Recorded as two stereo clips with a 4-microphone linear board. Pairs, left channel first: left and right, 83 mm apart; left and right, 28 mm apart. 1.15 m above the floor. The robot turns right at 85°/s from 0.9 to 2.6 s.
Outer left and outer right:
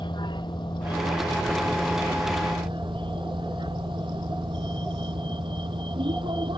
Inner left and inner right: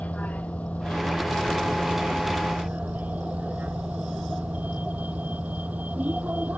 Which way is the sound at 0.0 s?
110° left.